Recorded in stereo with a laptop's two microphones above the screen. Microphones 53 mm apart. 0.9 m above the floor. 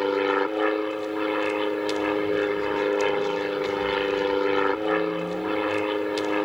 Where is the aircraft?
5° right (ahead or behind).